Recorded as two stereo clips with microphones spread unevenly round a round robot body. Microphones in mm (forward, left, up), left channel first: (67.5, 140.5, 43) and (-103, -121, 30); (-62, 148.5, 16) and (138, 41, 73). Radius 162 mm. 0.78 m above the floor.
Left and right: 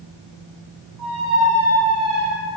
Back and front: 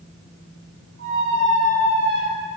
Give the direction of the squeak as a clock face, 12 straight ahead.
1 o'clock.